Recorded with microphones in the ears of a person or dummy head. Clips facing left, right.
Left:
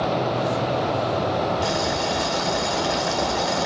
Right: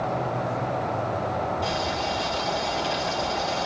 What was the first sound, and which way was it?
Boiling, 60° left (ahead or behind).